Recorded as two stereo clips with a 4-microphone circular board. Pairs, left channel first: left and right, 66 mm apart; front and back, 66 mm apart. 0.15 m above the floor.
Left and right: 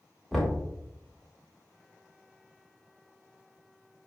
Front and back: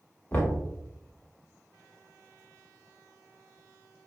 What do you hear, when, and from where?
0.3 s knocking: 5° left, 0.9 m